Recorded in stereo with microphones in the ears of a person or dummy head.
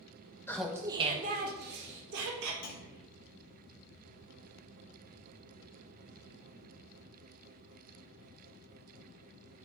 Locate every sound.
0.5 s laughter: 10° left (ahead or behind), 0.5 m; by 2.5 s 65° right (ahead or behind), 1.5 m
2.6 s a clunk: 55° left (ahead or behind), 1.1 m